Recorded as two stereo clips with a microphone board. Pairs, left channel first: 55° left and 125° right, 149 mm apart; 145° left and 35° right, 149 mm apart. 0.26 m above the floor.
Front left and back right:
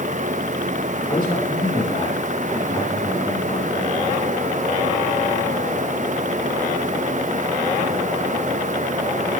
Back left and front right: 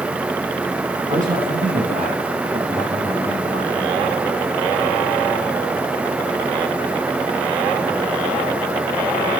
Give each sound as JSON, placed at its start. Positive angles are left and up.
{"t": 1.1, "sound": "a man speaking", "azimuth_deg": 0, "distance_m": 5.0}